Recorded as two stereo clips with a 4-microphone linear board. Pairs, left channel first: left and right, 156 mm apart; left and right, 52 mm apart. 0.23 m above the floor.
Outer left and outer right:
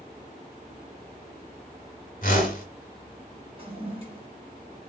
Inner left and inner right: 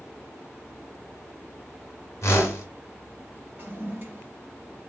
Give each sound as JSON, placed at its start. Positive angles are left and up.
{"t": 2.2, "sound": "a whoosh", "side_deg": 60, "distance_m": 1.5}
{"t": 3.6, "sound": "a toilet flushing", "side_deg": -35, "distance_m": 1.2}